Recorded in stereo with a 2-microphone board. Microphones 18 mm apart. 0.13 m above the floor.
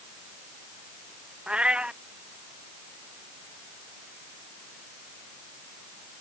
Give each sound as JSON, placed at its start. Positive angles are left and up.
{"t": 1.5, "sound": "a cat meowing", "side_deg": -75}